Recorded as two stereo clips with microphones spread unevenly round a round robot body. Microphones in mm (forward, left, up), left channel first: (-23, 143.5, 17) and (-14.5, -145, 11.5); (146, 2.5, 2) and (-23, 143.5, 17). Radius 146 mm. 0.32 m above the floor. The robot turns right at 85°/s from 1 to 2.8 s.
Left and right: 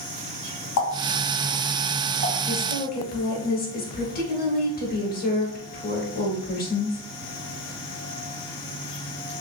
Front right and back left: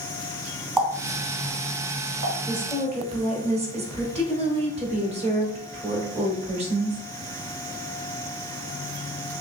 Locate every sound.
0.8 s a running tap: 55° left, 1.6 m; by 2.4 s 170° left, 1.6 m
2.5 s a woman speaking: 75° left, 0.9 m; by 7.0 s 105° left, 0.9 m